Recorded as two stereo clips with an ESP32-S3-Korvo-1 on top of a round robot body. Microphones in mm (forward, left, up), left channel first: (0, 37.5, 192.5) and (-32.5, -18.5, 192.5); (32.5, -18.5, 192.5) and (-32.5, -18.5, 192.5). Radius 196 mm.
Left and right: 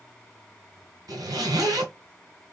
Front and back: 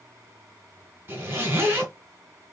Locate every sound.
1.1 s a zipper: 130° right, 2.5 m